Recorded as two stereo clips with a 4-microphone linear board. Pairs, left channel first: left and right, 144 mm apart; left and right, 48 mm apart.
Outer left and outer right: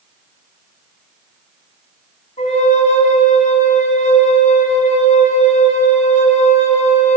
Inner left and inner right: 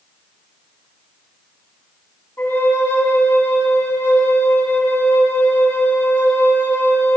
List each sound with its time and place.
2.4 s a flute: 55° left (ahead or behind), 1.6 m